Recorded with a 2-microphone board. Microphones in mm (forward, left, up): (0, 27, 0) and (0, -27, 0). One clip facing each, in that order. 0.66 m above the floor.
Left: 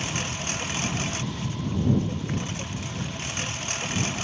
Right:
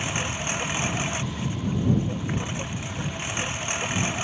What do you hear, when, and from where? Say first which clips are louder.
0.0 s a lawn mower: right 2 dB; 15° right (ahead or behind)